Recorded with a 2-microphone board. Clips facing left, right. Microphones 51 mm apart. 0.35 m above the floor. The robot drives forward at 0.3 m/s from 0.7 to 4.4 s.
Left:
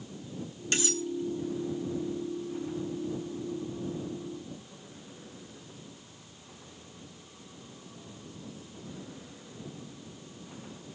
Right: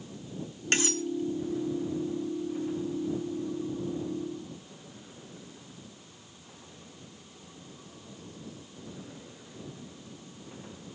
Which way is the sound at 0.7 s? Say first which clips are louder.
Right 3 dB; 45° right (ahead or behind).